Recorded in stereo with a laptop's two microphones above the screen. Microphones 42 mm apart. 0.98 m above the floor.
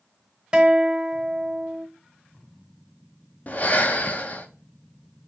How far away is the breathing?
About 0.5 m.